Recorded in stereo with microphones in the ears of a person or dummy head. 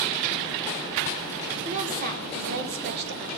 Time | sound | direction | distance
1.6 | a woman speaking | 40° right (ahead or behind) | 4.5 m